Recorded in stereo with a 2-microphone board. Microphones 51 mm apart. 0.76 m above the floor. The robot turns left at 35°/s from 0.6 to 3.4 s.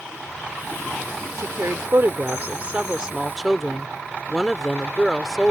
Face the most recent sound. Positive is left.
turn(degrees=180)